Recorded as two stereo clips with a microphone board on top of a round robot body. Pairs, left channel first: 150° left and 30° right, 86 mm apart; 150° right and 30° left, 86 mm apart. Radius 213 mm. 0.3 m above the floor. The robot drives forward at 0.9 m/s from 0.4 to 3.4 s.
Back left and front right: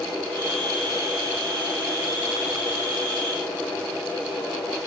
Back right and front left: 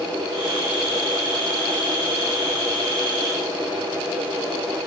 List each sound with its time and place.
Only background noise.